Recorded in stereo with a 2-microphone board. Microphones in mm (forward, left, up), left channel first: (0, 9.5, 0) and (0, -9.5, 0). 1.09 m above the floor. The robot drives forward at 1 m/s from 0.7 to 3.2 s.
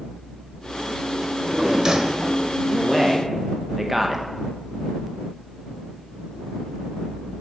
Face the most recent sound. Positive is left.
turn(degrees=-15)  # may be behind; listen again after turning